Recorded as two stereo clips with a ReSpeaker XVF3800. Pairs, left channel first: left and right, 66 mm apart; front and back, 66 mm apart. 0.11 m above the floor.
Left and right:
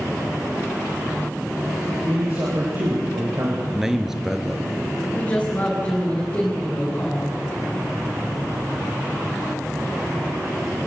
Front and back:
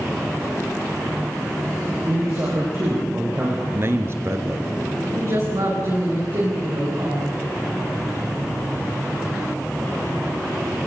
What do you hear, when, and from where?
2.0 s a man speaking: 135° right, 8 m; by 3.6 s 130° right, 6 m
3.7 s a man speaking: 170° right, 1.7 m
5.1 s a woman speaking: 155° left, 9 m